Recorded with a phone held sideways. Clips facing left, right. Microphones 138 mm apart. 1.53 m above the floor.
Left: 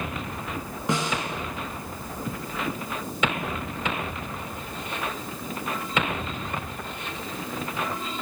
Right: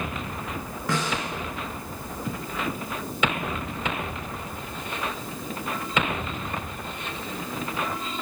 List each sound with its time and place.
0.9 s a snare drum: 20° left (ahead or behind), 9.5 m